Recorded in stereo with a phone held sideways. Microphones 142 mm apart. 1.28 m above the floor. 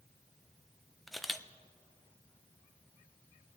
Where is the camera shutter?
Centre (ahead or behind), 0.5 m.